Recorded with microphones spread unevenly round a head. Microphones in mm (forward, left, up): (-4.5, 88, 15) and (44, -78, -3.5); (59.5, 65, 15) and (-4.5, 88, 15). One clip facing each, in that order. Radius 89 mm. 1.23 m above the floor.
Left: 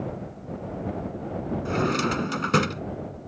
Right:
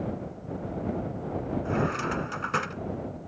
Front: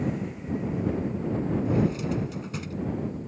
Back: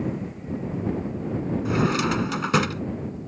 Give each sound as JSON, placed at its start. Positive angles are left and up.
{"t": 1.6, "sound": "a drawer", "azimuth_deg": 150}